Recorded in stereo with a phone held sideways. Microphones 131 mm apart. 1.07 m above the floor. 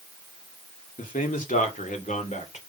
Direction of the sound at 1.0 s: 85° left.